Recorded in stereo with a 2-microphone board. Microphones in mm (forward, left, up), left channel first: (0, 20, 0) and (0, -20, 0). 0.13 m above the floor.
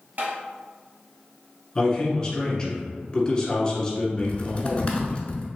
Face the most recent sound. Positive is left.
turn(degrees=30)  # may be behind; listen again after turning